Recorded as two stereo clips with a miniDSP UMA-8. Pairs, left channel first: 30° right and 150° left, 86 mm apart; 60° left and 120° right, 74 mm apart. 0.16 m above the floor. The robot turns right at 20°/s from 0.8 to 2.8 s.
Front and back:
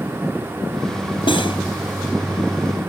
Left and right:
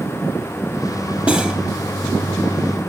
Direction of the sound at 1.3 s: 50° right.